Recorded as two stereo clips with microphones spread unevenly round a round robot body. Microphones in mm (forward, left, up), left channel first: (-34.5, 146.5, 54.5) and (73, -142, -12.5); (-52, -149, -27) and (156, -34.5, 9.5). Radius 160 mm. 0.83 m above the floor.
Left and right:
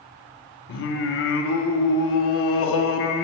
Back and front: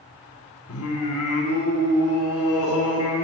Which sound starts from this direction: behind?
Singing, at 0.7 s.